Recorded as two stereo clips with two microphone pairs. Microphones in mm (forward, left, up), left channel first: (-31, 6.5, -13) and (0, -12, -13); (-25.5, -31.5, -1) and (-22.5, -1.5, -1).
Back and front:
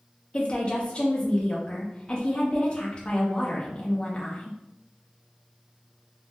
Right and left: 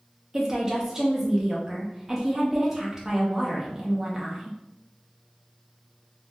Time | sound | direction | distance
0.3 | a woman speaking | 155° left | 0.5 m